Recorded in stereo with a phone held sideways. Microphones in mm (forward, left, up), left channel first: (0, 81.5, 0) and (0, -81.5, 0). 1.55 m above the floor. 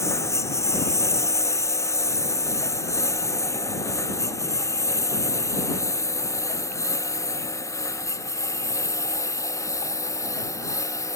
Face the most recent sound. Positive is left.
turn(degrees=20)  # may be behind; listen again after turning